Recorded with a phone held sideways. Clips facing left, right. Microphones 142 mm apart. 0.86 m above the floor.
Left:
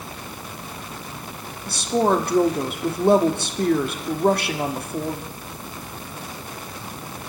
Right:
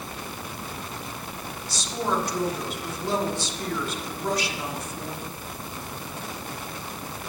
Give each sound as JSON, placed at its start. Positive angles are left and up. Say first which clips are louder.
{"t": 1.7, "sound": "a woman speaking", "louder": "left 9 dB", "side_deg": 55, "distance_m": 1.6}